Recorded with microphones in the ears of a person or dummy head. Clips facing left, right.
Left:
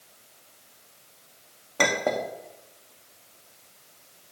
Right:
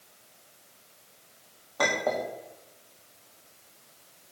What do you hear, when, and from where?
1.8 s a clink: 35° left (ahead or behind), 1.4 m